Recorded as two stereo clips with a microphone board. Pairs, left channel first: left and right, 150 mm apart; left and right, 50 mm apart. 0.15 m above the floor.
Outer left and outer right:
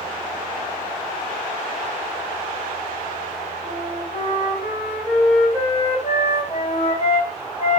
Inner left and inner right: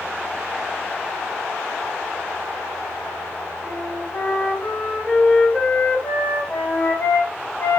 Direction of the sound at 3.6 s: 40° left (ahead or behind).